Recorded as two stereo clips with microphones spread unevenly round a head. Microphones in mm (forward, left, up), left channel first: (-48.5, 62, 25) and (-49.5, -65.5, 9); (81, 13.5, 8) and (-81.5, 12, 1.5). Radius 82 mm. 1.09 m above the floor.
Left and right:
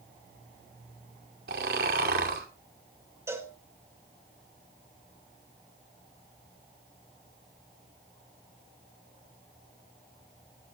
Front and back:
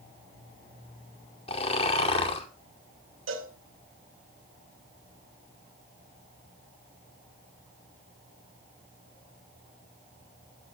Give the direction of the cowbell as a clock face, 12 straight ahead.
5 o'clock.